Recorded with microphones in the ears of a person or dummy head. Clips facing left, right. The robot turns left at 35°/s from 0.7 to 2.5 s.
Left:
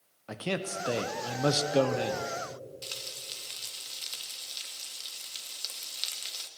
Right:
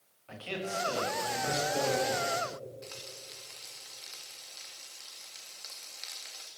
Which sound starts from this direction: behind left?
A man speaking, at 0.3 s.